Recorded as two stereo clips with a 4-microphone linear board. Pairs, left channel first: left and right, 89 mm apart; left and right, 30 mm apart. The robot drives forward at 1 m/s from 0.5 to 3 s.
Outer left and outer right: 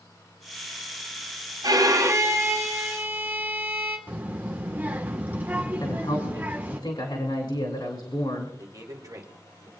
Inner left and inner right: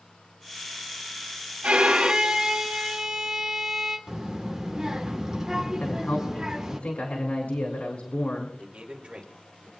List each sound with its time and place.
1.6 s a violin: 45° right (ahead or behind), 1.0 m; by 4.0 s 20° right (ahead or behind), 2 m
4.1 s a child speaking: 20° right (ahead or behind), 1.5 m
5.8 s a woman speaking: 60° left (ahead or behind), 2.5 m
8.6 s a man speaking: 40° right (ahead or behind), 2.5 m